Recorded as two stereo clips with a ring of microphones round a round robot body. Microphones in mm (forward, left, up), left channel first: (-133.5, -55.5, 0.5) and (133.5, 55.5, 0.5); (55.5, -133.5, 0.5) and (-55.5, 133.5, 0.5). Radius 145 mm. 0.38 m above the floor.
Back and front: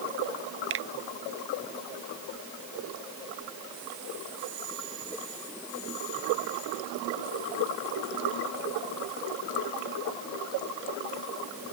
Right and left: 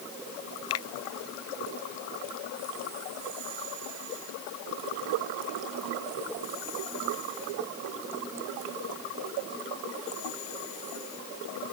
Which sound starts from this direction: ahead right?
A finger snap, at 0.7 s.